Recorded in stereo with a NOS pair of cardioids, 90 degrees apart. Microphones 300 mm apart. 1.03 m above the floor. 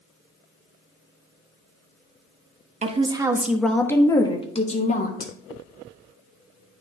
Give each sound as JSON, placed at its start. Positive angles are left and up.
{"t": 2.8, "sound": "a woman speaking", "azimuth_deg": -25, "distance_m": 1.0}